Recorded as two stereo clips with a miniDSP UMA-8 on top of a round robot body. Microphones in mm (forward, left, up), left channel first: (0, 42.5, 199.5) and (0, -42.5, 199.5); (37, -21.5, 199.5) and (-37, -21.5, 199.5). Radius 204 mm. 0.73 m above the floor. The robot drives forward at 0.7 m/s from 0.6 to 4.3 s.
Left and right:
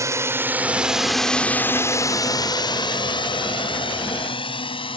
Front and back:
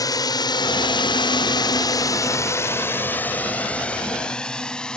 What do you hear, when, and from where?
0.0 s a drone: 35° right; by 5.0 s 80° left